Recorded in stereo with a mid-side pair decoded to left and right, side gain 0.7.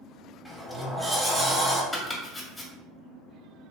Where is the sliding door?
Straight ahead, 1.0 m.